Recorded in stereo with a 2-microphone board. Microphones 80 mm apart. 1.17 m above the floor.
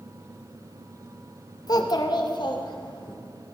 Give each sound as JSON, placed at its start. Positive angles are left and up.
{"t": 1.7, "sound": "a child speaking", "side_deg": 50, "distance_m": 0.6}